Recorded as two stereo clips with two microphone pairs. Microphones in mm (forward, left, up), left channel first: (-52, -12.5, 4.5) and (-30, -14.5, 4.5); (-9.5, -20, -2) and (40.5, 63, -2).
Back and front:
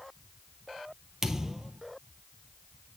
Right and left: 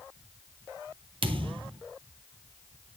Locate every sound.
1.2 s a thud: 70° left, 1.2 m